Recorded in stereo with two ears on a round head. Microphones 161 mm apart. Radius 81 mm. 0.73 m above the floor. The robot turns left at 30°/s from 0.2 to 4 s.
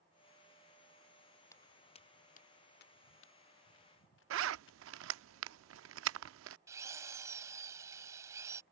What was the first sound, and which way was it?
Footsteps, 15° left (ahead or behind).